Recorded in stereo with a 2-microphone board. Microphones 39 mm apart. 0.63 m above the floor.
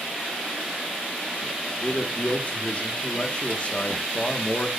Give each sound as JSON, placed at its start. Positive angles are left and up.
{"t": 1.8, "sound": "a man speaking", "side_deg": 40, "distance_m": 1.4}